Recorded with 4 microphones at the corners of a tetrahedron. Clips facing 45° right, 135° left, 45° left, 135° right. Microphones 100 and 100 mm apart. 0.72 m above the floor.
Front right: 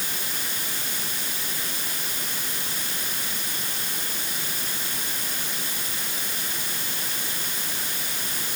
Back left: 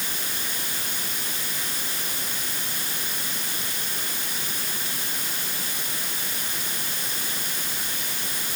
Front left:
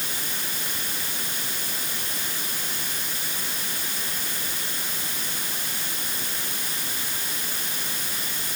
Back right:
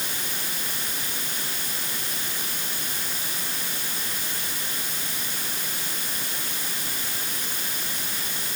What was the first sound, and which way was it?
Only background noise.